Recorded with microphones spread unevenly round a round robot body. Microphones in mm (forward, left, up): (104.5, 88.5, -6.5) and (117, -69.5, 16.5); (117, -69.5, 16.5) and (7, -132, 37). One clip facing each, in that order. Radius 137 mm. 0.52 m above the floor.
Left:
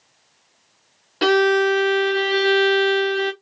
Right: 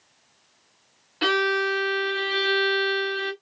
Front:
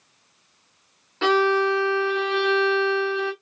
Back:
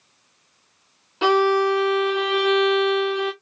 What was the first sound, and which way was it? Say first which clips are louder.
A violin: left 8 dB, back 2 dB; 125° left.